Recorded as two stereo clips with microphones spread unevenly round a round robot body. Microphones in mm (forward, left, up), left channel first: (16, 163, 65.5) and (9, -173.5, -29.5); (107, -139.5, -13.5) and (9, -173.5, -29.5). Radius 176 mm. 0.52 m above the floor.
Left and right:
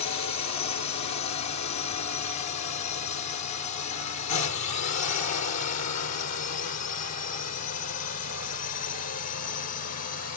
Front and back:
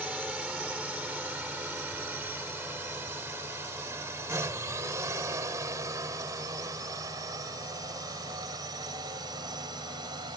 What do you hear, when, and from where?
0.0 s a drone: 120° left; by 10.4 s 140° left